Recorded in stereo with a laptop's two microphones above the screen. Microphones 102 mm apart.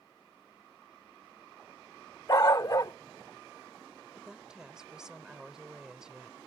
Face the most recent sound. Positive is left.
turn(degrees=-5)  # may be behind; listen again after turning